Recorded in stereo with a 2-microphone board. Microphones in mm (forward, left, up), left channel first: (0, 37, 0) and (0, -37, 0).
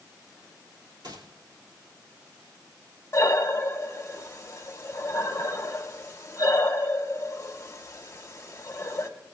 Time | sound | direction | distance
1.0 | a gunshot | 70° right (ahead or behind) | 2.5 m
3.1 | breathing | 40° left (ahead or behind) | 1.1 m